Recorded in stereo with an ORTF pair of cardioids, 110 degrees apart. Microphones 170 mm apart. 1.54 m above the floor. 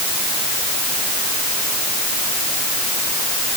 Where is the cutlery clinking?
I don't hear cutlery clinking.